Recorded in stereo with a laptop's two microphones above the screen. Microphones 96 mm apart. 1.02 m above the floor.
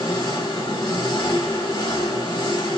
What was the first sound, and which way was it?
An engine running, 45° left (ahead or behind).